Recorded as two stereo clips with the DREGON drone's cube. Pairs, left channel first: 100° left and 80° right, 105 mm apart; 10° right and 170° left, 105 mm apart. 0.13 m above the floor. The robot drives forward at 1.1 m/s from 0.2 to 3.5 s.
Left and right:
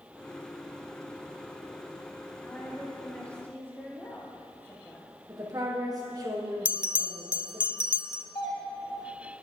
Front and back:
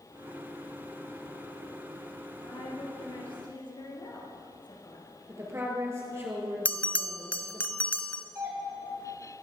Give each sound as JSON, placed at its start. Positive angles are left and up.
{"t": 2.4, "sound": "a woman speaking", "azimuth_deg": 20, "distance_m": 4.0}
{"t": 5.3, "sound": "a woman speaking", "azimuth_deg": -130, "distance_m": 3.0}
{"t": 6.7, "sound": "a bell", "azimuth_deg": -85, "distance_m": 0.5}
{"t": 8.3, "sound": "a doorbell", "azimuth_deg": 125, "distance_m": 3.0}